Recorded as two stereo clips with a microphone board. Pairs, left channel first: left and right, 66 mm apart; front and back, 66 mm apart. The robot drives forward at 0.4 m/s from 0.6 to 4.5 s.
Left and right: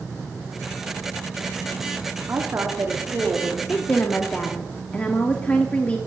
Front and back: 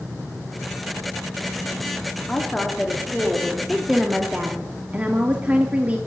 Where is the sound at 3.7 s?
85° left, 0.7 m; by 6.0 s 135° left, 0.8 m.